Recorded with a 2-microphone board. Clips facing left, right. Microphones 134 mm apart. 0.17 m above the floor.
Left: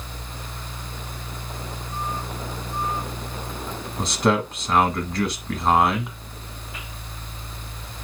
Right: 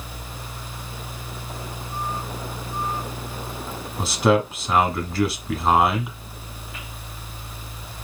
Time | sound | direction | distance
4.0 | a man speaking | 5° right (ahead or behind) | 1.0 m